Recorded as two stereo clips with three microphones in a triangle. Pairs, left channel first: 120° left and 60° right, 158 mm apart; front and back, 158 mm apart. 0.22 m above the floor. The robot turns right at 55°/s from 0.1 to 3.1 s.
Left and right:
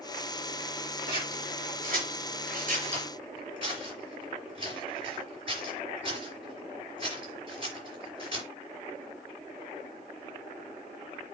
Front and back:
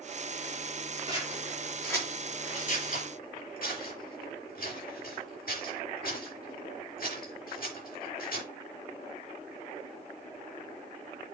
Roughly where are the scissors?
Behind right.